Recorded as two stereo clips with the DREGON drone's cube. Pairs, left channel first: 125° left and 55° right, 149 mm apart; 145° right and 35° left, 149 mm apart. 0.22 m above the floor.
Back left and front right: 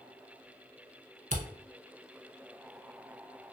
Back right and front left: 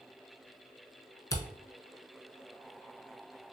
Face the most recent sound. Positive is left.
turn(degrees=-80)